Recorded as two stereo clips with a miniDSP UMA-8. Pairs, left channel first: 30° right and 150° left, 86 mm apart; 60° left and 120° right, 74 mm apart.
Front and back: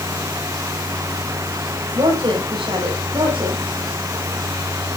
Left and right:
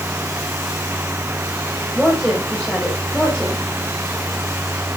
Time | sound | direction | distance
1.9 | a woman speaking | 140° left | 5 m